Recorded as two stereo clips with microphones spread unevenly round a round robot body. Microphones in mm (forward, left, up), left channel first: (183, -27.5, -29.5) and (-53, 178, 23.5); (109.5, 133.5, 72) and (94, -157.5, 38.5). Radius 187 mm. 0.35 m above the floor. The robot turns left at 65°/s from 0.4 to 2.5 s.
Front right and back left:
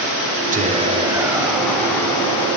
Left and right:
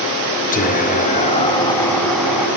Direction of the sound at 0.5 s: 90° left.